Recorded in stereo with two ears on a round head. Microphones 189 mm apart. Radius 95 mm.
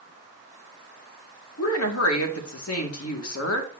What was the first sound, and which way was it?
A woman speaking, 80° left.